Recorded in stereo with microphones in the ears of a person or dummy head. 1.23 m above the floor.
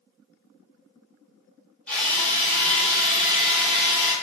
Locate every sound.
1.9 s a drill: 5° left (ahead or behind), 1.3 m